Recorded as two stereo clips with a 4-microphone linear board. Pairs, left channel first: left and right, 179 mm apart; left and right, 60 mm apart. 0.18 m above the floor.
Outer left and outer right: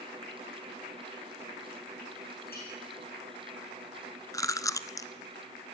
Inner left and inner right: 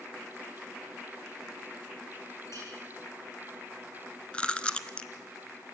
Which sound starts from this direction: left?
A clink, at 2.5 s.